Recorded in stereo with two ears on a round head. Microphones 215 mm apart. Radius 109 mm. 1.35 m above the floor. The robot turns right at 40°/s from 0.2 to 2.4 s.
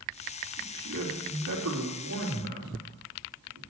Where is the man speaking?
70° right (ahead or behind), 3 m; by 3.6 s 40° right (ahead or behind), 3 m.